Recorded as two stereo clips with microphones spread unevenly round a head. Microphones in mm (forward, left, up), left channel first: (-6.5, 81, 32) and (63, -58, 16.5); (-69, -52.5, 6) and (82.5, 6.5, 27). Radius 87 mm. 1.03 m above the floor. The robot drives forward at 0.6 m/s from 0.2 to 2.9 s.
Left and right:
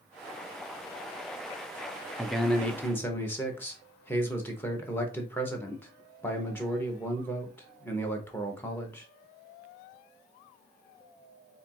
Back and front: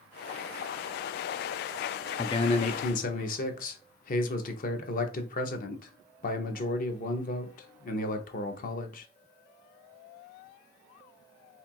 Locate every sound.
2.2 s a man speaking: 135° right, 0.5 m; by 9.1 s 165° right, 0.8 m